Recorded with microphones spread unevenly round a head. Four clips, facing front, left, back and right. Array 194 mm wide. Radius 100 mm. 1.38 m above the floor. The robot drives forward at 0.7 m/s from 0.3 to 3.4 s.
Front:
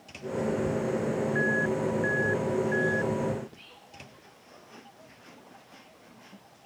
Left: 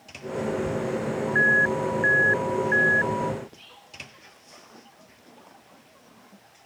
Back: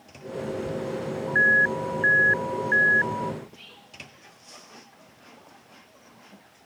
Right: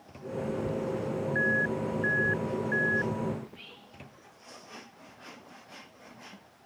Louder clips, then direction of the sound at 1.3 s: Left 7 dB, back 9 dB; 125° left.